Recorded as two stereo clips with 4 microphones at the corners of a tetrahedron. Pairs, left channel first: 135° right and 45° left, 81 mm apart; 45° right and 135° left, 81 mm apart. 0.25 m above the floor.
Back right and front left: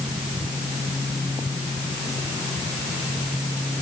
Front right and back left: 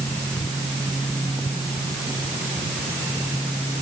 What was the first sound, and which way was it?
Only background noise.